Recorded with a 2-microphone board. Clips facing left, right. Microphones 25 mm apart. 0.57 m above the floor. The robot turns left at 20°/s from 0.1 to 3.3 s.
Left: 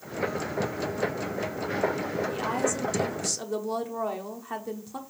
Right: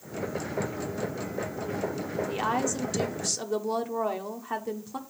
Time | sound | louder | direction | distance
2.3 | a woman speaking | right 2 dB | 20° right (ahead or behind) | 1.0 m